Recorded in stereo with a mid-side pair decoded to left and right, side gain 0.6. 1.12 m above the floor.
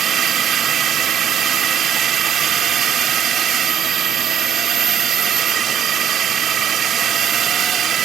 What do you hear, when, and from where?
0.0 s a drone: 50° right